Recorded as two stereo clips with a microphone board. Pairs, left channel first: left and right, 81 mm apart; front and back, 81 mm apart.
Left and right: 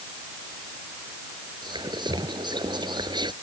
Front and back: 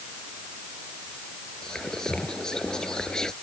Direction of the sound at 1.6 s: 80° right.